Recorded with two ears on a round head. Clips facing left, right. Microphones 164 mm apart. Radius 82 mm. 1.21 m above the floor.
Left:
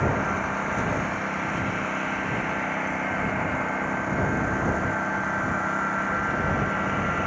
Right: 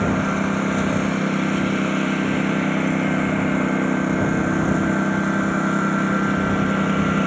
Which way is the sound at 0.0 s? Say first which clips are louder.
Right 6 dB; 45° right (ahead or behind).